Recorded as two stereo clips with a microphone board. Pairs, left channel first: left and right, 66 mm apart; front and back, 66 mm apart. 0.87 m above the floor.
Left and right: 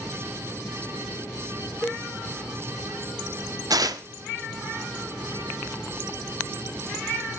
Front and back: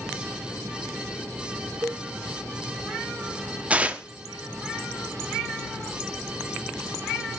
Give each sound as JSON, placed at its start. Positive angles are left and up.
{"t": 1.8, "sound": "a cowbell", "azimuth_deg": 150, "distance_m": 0.6}
{"t": 3.7, "sound": "tearing paper", "azimuth_deg": -110, "distance_m": 0.8}